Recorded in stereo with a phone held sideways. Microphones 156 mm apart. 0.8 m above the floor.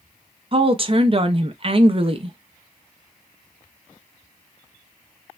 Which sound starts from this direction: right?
A woman speaking, at 0.5 s.